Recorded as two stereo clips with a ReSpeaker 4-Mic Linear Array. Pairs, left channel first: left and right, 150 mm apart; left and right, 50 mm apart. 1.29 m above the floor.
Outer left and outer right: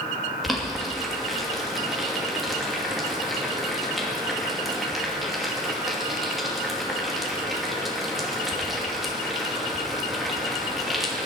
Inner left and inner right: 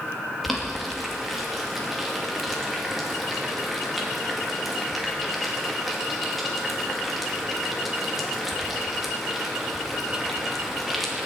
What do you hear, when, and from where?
0.4 s boiling: centre (ahead or behind), 2.5 m